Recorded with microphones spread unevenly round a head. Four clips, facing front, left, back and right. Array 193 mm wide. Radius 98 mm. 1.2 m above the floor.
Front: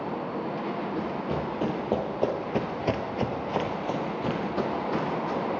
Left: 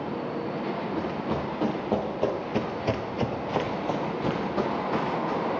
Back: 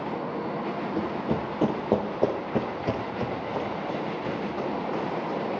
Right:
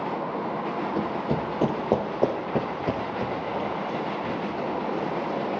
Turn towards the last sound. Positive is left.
turn(degrees=40)